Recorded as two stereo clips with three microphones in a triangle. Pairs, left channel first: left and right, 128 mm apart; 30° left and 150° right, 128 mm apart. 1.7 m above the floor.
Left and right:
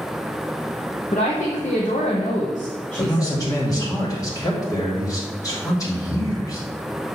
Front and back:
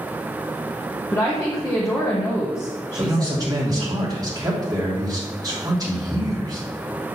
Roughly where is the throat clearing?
I don't hear throat clearing.